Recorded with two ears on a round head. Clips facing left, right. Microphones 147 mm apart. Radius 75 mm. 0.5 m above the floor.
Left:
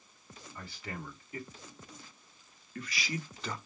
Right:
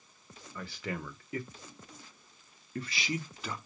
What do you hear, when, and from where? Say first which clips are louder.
0.6 s a man speaking: right 5 dB; 60° right (ahead or behind), 1.8 m; by 3.6 s centre (ahead or behind), 0.8 m